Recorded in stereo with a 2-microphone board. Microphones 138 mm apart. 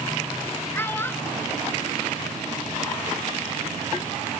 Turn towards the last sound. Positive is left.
turn(degrees=15)  # may be behind; listen again after turning